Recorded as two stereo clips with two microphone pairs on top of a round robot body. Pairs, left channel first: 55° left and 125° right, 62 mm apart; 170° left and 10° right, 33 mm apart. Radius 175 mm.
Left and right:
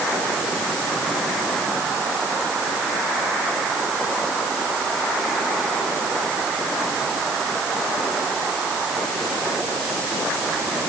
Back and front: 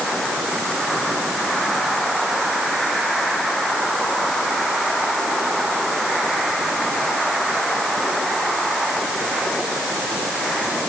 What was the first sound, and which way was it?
Only background noise.